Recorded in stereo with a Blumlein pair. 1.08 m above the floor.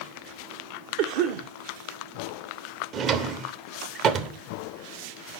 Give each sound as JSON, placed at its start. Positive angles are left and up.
{"t": 1.0, "sound": "a cough", "azimuth_deg": -45, "distance_m": 0.5}
{"t": 2.9, "sound": "a drawer", "azimuth_deg": -30, "distance_m": 0.6}